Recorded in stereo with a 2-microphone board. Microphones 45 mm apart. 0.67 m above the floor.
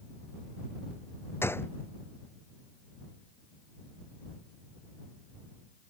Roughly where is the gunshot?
Left.